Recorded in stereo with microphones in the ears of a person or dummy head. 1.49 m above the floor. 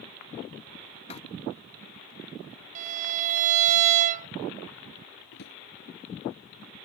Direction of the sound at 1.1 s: 35° left (ahead or behind).